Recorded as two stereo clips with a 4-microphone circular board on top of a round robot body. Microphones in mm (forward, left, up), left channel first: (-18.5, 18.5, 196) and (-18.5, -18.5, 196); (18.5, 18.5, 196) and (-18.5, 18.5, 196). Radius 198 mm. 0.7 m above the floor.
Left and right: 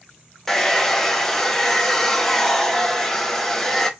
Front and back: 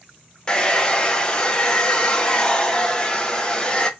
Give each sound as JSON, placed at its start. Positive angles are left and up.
{"t": 0.5, "sound": "a hair dryer", "azimuth_deg": 25, "distance_m": 0.8}